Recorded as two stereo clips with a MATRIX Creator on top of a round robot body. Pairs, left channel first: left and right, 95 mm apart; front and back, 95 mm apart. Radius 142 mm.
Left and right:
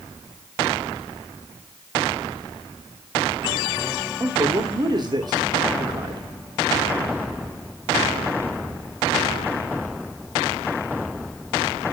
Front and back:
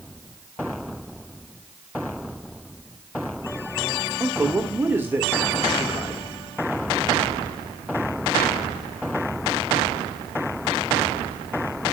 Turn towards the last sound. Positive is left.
turn(degrees=-115)